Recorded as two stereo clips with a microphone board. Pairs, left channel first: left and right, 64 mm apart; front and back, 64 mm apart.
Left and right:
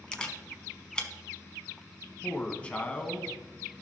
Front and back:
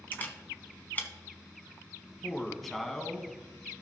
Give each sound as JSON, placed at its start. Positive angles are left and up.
{"t": 0.1, "sound": "a camera shutter", "azimuth_deg": 25, "distance_m": 1.1}
{"t": 2.2, "sound": "a man speaking", "azimuth_deg": 80, "distance_m": 1.1}